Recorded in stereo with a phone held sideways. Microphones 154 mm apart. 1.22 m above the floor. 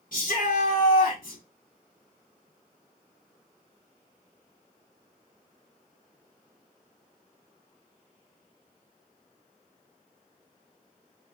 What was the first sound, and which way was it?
A shout, 70° left (ahead or behind).